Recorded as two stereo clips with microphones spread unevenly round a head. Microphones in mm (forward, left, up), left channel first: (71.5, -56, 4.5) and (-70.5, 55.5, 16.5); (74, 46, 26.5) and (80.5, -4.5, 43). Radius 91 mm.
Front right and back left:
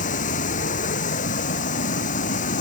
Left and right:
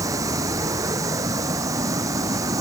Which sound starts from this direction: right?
Running water, at 0.0 s.